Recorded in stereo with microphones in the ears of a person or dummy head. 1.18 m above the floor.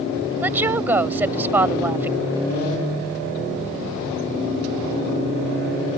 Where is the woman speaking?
10° right (ahead or behind).